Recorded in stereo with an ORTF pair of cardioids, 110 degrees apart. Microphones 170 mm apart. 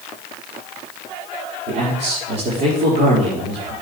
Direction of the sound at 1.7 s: 70° right.